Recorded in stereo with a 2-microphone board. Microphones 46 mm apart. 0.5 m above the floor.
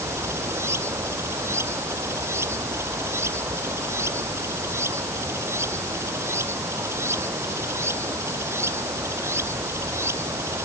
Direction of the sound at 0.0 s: 70° right (ahead or behind).